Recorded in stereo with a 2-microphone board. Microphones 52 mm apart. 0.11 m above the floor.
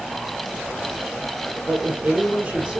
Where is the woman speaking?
20° right (ahead or behind), 4 m.